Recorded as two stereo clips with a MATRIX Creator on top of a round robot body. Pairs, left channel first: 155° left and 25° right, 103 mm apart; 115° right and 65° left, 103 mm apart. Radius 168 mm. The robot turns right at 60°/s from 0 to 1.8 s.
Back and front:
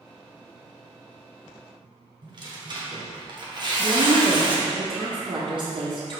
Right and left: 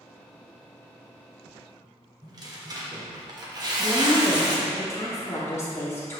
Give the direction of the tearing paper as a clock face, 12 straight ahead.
11 o'clock.